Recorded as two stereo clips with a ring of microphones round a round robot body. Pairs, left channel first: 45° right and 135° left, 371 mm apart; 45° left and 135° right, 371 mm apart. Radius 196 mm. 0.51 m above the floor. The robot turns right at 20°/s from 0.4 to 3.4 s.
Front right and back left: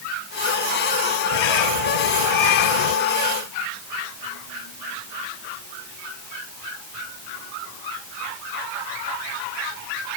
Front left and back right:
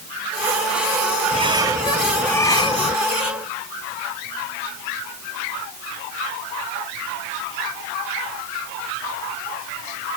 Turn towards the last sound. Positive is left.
turn(degrees=-20)